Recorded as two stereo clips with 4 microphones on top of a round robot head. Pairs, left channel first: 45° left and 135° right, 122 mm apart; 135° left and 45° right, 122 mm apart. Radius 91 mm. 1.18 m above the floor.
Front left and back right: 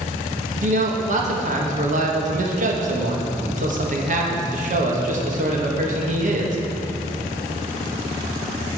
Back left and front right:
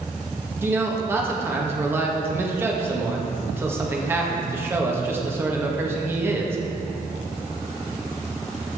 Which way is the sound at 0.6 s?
115° right.